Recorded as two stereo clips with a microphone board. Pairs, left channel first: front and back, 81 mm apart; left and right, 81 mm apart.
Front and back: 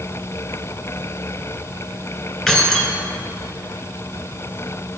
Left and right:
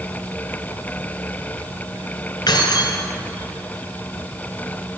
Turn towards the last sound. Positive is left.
turn(degrees=85)